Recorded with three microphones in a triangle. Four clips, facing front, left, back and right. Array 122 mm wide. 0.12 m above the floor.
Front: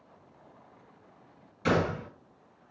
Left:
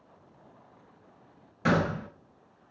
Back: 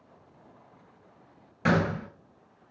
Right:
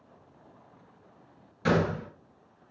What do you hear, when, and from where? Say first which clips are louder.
1.6 s a gunshot: even, back 1 dB; 155° left, 1.8 m